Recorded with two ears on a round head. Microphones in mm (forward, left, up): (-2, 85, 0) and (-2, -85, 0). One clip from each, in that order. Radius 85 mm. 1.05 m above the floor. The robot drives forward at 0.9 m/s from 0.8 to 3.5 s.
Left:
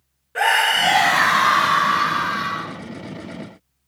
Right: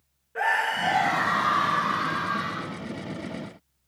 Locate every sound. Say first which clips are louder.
0.3 s a scream: left 8 dB; 70° left (ahead or behind), 1.1 m; by 2.8 s 30° left (ahead or behind), 2 m